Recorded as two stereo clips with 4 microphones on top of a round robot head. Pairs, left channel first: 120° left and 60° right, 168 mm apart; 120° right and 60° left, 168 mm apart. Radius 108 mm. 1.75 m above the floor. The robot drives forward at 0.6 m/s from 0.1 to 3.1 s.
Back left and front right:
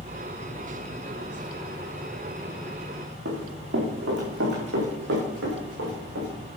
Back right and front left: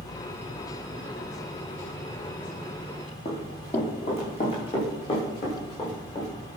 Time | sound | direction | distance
3.2 | running footsteps | 70° right | 4.5 m